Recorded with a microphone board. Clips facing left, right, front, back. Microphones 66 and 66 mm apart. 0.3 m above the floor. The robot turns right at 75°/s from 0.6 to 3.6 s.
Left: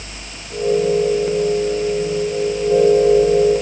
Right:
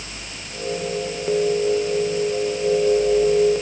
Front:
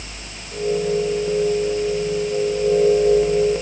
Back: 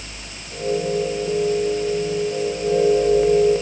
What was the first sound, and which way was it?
Only background noise.